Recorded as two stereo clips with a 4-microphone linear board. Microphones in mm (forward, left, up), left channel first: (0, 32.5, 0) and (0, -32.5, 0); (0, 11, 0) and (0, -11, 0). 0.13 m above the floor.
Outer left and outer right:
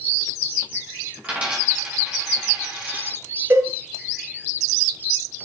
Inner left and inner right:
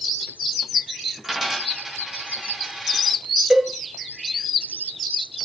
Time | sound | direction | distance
1.2 | a dropped coin | 20° right (ahead or behind) | 6.5 m
3.5 | a cowbell | 45° right (ahead or behind) | 1.8 m